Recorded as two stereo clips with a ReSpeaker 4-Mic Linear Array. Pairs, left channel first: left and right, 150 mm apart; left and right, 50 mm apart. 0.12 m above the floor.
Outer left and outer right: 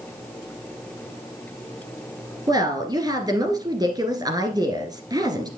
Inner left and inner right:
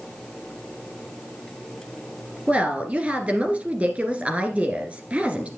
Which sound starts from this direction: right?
A woman speaking, at 2.5 s.